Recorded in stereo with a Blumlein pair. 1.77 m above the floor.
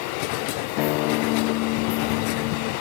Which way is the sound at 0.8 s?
40° left.